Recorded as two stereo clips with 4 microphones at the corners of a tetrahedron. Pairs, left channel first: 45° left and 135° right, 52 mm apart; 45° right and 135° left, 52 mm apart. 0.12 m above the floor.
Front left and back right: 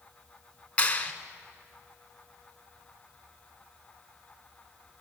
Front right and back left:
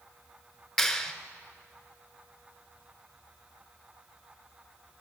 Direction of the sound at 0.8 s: 35° left.